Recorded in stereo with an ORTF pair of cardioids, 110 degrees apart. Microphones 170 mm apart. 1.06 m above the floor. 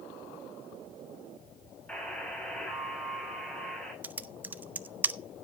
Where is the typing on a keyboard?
10° right, 0.8 m.